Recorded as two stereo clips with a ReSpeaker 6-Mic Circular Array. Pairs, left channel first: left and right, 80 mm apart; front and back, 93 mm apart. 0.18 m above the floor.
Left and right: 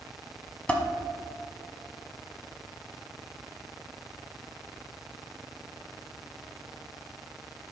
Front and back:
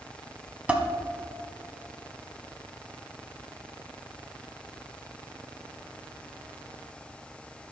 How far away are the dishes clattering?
About 0.9 m.